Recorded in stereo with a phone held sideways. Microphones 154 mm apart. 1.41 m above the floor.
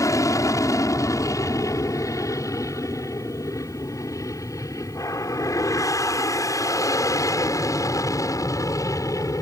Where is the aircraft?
20° left (ahead or behind).